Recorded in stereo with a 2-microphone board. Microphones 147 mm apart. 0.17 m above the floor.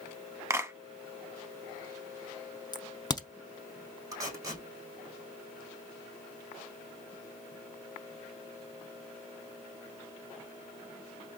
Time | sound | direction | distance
0.5 | a clap | 20° right (ahead or behind) | 0.8 m
2.7 | a crack | 30° left (ahead or behind) | 0.6 m
4.1 | tape being pulled | 25° right (ahead or behind) | 3 m